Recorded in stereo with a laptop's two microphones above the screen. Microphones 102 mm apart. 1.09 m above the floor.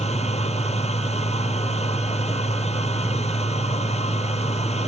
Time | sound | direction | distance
0.0 | a machine running | 85° left | ?